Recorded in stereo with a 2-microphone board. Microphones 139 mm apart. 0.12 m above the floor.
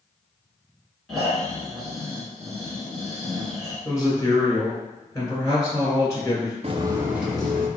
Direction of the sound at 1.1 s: Centre (ahead or behind).